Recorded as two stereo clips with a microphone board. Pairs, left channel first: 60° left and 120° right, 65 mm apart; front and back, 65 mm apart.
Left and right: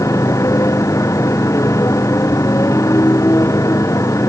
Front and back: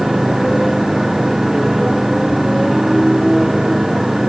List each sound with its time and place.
0.0 s a motorcycle: 95° left